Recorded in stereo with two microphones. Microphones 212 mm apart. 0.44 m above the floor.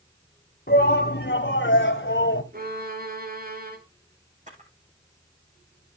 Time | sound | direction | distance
0.7 | a shout | 50° left (ahead or behind) | 3 m
2.5 | a violin | 45° right (ahead or behind) | 2.5 m
4.5 | a camera shutter | 40° right (ahead or behind) | 8.5 m